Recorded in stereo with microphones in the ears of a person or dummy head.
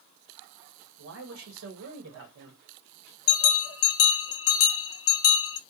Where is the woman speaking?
75° right (ahead or behind), 1.3 m.